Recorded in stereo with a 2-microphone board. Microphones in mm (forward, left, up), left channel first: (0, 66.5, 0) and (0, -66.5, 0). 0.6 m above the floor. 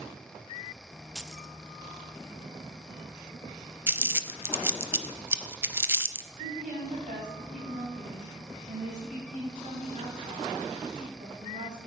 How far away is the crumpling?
About 0.6 m.